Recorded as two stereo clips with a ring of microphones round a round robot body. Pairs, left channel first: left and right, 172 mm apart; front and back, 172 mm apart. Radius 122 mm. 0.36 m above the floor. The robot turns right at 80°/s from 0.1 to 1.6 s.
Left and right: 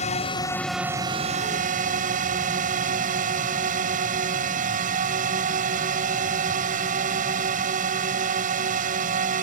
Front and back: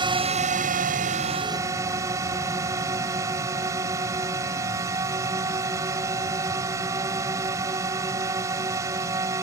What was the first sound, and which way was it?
A drone, 130° left.